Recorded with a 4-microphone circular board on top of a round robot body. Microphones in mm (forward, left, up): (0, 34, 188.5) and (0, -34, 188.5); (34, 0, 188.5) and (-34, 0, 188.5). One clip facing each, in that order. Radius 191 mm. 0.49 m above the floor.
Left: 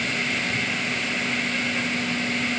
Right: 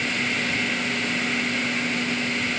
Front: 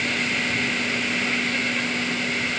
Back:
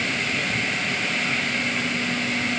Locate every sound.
Only background noise.